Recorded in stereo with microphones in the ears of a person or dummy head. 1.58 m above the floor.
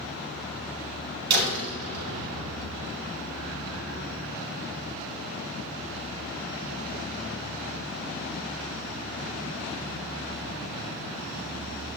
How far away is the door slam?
About 5.5 m.